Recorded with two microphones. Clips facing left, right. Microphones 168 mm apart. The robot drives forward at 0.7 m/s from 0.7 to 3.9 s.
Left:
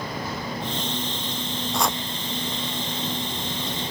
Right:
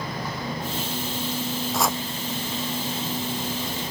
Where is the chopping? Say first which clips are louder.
Even; centre (ahead or behind).